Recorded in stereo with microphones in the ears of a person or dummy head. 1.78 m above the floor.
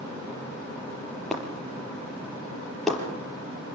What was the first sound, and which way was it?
Breaking glass, centre (ahead or behind).